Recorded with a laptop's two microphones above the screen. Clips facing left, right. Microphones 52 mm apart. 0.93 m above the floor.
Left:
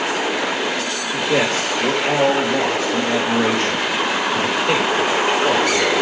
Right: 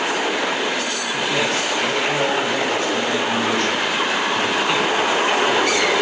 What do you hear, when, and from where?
1.1 s a man speaking: 75° left (ahead or behind), 4.5 m